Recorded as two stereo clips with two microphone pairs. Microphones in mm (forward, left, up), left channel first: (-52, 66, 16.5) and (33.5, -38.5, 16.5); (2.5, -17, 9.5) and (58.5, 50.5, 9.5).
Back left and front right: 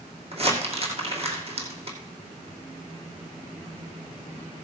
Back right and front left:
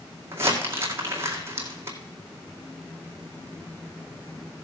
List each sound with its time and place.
0.3 s crumpling: 10° right, 2.5 m